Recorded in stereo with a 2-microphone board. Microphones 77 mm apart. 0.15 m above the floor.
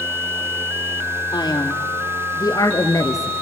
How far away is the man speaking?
About 3.5 m.